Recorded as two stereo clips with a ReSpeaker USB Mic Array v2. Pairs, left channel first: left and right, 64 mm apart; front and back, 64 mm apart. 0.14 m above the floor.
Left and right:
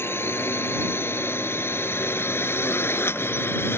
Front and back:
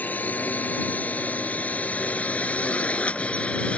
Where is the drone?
55° left; by 3.8 s 60° left.